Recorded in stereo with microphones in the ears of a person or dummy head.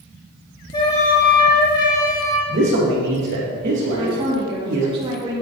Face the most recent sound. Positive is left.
turn(degrees=-25)  # may be behind; listen again after turning